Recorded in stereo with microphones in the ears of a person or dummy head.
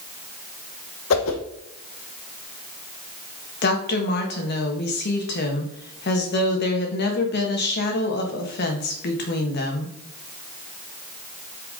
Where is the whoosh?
75° left (ahead or behind), 1.0 m.